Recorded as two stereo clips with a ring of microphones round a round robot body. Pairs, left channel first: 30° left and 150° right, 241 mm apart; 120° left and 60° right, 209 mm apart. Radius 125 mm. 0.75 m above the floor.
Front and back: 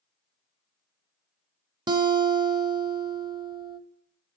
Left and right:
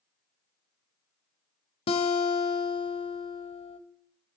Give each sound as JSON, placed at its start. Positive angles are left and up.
{"t": 1.9, "sound": "a guitar", "azimuth_deg": 155, "distance_m": 0.5}